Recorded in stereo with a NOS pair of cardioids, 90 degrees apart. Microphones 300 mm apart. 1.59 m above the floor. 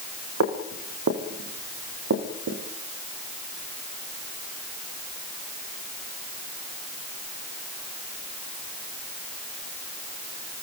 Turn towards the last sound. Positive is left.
turn(degrees=-55)